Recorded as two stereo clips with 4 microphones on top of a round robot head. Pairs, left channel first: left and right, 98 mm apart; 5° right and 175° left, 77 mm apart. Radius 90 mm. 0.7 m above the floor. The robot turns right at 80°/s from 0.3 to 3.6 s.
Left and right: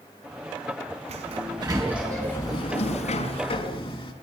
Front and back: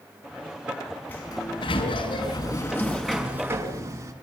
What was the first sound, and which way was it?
A sliding door, 80° right.